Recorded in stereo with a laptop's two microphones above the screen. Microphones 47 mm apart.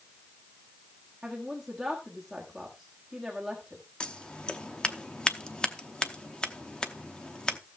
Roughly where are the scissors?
Centre.